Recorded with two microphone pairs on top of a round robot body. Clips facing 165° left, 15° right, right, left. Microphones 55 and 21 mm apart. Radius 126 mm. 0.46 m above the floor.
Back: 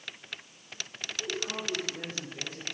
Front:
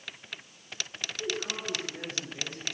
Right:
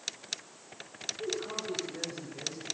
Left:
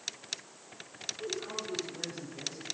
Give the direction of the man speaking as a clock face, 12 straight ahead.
2 o'clock.